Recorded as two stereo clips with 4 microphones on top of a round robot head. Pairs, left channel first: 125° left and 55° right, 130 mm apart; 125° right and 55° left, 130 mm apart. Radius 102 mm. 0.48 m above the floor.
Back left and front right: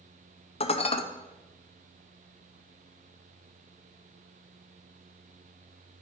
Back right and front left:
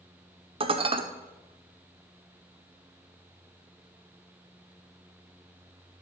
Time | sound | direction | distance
0.6 | dishes clattering | 95° left | 0.8 m